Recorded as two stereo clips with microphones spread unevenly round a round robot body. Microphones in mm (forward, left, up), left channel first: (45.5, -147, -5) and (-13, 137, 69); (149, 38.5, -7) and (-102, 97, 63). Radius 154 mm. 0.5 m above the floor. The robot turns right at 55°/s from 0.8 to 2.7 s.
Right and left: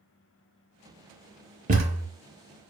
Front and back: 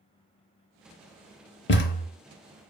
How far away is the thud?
About 0.6 m.